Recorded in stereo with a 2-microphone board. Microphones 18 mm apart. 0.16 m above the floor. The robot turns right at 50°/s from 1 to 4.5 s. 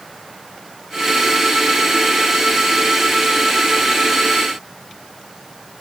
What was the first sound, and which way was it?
Only background noise.